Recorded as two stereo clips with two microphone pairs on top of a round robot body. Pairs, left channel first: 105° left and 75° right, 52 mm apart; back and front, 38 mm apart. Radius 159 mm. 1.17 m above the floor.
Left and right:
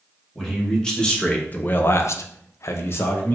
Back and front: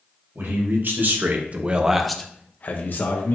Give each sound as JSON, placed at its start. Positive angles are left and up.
{"t": 0.3, "sound": "a man speaking", "azimuth_deg": 20, "distance_m": 1.5}